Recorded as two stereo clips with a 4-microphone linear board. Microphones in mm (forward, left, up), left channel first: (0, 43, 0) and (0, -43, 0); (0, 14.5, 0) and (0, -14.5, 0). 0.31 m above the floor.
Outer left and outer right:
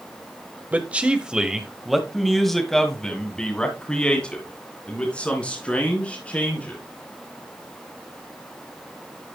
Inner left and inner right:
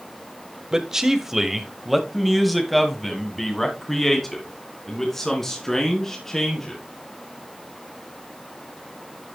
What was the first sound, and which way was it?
A man speaking, 20° right (ahead or behind).